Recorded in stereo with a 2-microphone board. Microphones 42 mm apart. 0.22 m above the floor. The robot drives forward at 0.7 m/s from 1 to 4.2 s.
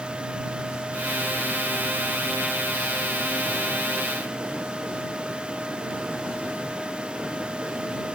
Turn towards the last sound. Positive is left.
No sound to turn to.